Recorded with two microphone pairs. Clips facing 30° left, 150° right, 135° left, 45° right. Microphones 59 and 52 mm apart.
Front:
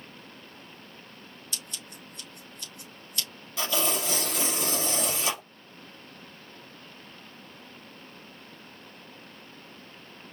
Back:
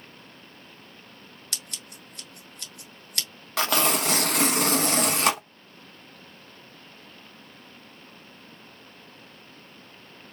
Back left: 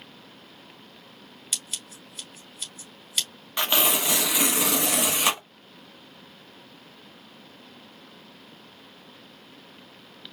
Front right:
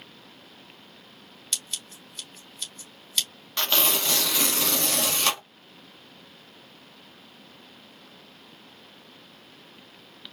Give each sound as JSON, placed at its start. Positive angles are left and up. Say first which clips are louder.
{"t": 1.5, "sound": "scissors", "louder": "back 1 dB, front right 1 dB", "azimuth_deg": -145, "distance_m": 2.5}
{"t": 3.6, "sound": "tearing paper", "louder": "back 5 dB, back left 2 dB", "azimuth_deg": -155, "distance_m": 0.9}